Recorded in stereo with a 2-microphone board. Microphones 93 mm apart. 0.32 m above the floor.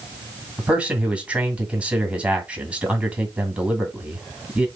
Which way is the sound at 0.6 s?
15° right (ahead or behind).